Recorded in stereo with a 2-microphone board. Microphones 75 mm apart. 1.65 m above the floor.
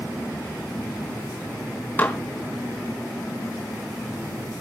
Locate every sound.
2.0 s dishes clattering: 20° left (ahead or behind), 1.6 m